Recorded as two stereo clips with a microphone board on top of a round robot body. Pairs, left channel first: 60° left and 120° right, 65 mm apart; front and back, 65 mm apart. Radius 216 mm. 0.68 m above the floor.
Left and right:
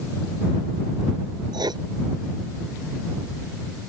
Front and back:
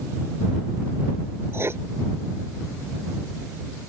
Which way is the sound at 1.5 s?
125° right.